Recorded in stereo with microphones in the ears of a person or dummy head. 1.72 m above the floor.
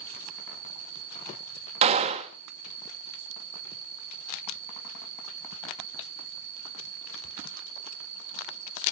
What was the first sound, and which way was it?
An insect, 30° right (ahead or behind).